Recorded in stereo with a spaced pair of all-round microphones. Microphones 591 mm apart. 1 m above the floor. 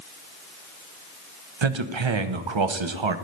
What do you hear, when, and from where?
1.6 s a man speaking: 55° right (ahead or behind), 0.7 m